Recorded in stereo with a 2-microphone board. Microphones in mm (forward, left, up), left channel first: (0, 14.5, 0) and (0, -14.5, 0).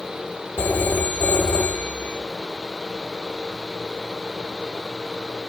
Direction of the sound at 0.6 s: 60° left (ahead or behind).